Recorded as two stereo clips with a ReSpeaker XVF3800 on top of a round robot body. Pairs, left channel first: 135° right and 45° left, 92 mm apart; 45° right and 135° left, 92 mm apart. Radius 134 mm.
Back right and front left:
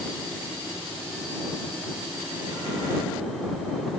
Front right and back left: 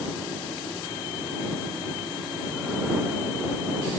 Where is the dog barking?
No dog barking in this recording.